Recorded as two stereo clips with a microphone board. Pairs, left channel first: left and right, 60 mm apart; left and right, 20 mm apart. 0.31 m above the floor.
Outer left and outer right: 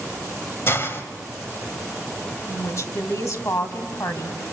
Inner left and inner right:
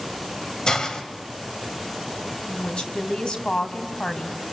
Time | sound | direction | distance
0.7 | a hiss | 40° left (ahead or behind) | 1.7 m
2.5 | a woman speaking | 55° left (ahead or behind) | 2.5 m